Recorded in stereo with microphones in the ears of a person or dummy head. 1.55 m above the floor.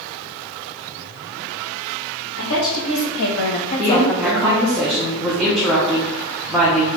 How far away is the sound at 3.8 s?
About 1.0 m.